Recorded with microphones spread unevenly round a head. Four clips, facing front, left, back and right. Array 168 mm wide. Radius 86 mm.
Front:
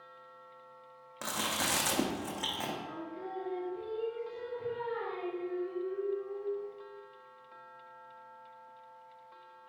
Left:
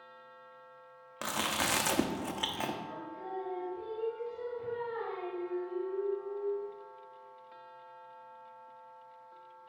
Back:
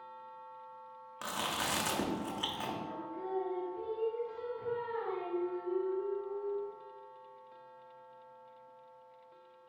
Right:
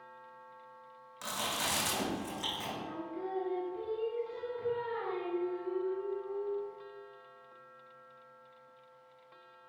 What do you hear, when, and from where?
1.2 s chewing: 65° left, 0.8 m
2.8 s singing: 80° right, 3 m